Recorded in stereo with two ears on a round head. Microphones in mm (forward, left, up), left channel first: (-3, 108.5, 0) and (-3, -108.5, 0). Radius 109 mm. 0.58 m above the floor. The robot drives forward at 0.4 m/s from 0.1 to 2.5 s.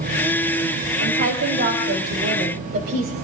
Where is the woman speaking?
50° right (ahead or behind), 3 m; by 3.1 s 40° right (ahead or behind), 3.5 m.